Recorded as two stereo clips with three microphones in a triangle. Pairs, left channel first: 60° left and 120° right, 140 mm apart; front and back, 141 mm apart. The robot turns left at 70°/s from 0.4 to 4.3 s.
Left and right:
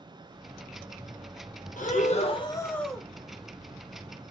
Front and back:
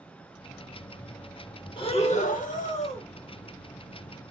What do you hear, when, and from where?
1.8 s breathing: 50° left, 0.5 m; by 3.0 s 40° right, 0.5 m